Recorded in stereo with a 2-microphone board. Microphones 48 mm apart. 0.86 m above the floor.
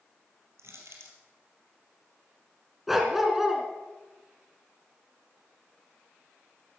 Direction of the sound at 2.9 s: 5° right (ahead or behind).